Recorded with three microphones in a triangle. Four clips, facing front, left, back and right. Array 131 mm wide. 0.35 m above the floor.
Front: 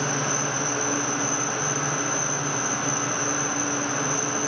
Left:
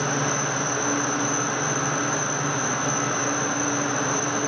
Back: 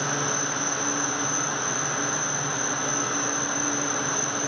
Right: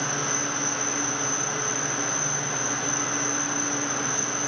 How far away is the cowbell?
I don't hear a cowbell.